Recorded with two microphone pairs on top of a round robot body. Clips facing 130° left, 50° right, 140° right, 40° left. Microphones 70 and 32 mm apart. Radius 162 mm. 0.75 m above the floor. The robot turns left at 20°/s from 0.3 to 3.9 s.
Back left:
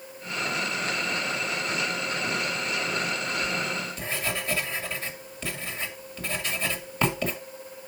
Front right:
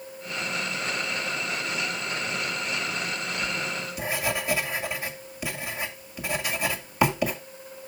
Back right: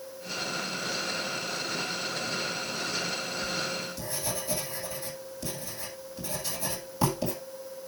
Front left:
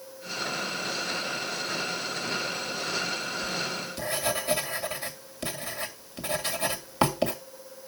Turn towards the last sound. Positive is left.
turn(degrees=30)